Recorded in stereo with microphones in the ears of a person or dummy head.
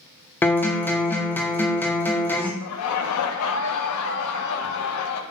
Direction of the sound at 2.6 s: 75° left (ahead or behind).